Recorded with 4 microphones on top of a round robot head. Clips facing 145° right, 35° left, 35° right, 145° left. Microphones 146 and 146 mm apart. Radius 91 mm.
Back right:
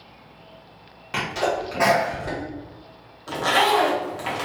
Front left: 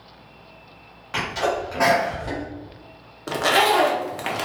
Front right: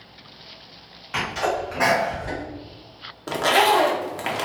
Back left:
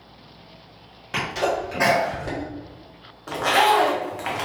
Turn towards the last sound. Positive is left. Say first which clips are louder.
# front left 1 dB, even
turn(degrees=15)